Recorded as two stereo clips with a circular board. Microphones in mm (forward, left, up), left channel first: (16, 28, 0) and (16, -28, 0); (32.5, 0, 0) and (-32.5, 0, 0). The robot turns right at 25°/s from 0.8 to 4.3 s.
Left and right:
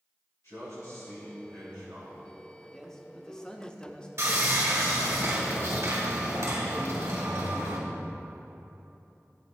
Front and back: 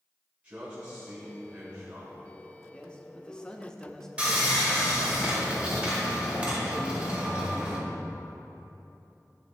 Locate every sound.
0.4 s a man speaking: 115° left, 3 m; by 2.2 s 150° left, 3 m
2.7 s a man speaking: 25° left, 0.7 m; by 4.1 s 60° left, 0.7 m
4.2 s sawing: 110° right, 1.9 m